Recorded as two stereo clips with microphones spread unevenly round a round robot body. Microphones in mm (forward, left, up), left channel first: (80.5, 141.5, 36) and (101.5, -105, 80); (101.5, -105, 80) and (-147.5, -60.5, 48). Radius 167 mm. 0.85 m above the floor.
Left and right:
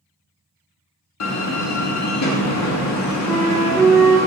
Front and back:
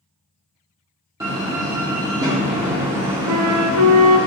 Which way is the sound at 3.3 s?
170° right.